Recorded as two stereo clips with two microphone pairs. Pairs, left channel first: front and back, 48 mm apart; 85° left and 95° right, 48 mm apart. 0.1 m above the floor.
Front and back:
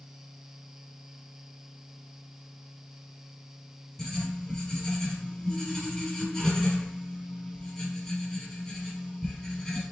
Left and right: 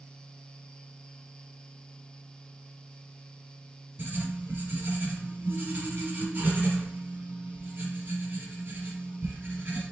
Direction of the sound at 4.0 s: 70° right.